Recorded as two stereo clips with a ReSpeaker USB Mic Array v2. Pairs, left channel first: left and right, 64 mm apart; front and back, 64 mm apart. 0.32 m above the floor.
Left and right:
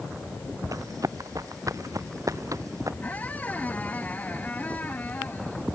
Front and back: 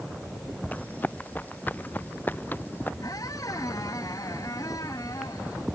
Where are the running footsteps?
65° right; by 2.9 s 60° right.